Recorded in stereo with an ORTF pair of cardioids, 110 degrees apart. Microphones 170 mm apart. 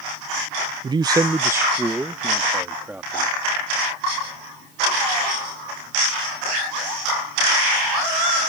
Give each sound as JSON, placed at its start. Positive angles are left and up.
{"t": 0.8, "sound": "a man speaking", "azimuth_deg": -30}